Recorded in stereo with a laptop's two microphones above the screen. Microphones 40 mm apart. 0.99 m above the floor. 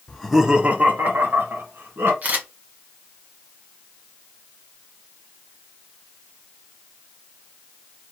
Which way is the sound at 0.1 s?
20° left (ahead or behind).